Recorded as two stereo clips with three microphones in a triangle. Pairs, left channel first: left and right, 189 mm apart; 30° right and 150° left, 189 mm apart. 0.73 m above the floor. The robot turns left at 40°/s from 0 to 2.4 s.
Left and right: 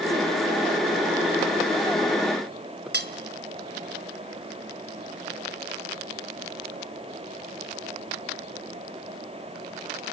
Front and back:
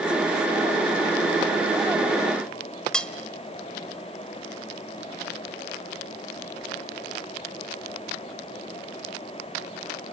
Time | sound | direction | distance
2.9 | cutlery clinking | 115° right | 1.7 m